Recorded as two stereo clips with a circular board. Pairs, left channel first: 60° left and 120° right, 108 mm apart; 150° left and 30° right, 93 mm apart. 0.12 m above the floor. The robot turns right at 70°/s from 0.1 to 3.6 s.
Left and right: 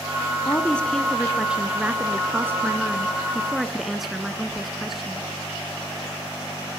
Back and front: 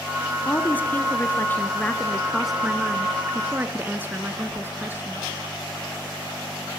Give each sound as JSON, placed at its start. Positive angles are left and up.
{"t": 0.5, "sound": "a woman speaking", "azimuth_deg": 105, "distance_m": 1.1}